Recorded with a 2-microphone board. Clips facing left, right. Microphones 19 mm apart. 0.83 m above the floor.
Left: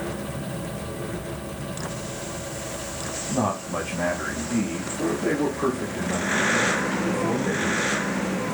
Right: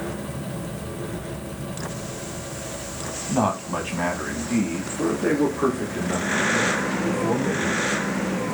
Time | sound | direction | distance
3.3 | a man speaking | 55° right (ahead or behind) | 1.2 m